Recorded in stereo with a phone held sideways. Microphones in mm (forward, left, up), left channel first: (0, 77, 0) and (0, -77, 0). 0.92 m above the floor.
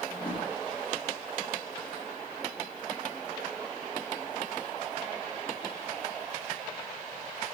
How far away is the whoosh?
About 2.0 m.